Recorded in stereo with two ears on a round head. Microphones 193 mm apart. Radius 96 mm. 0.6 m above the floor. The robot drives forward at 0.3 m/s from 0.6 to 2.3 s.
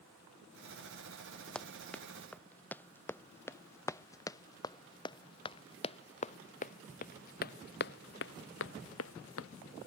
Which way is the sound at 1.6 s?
5° left (ahead or behind).